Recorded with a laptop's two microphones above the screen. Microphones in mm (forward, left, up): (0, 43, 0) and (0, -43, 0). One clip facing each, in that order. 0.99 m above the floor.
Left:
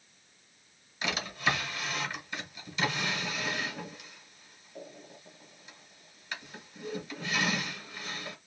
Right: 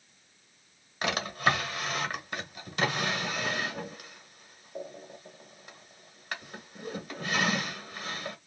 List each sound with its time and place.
1.0 s a drawer: 55° right (ahead or behind), 1.4 m